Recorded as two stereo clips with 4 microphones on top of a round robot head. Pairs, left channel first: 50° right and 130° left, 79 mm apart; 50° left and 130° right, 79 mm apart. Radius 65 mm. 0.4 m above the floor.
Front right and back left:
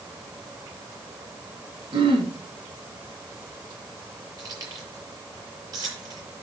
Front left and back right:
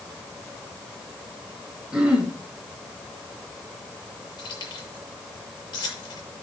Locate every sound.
1.9 s throat clearing: 145° left, 3.5 m
4.4 s keys jangling: 90° left, 7 m